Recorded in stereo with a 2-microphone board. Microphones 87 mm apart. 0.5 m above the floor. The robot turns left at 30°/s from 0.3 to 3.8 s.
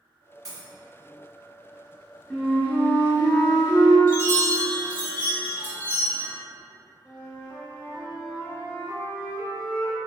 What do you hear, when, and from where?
0.5 s a dropped coin: 40° right (ahead or behind), 1.5 m; by 0.7 s 45° right (ahead or behind), 1.5 m
2.3 s a flute: 170° left, 0.7 m; by 4.0 s 125° left, 0.7 m
4.1 s a chime: 20° left (ahead or behind), 1.0 m
7.0 s a flute: 15° left (ahead or behind), 0.5 m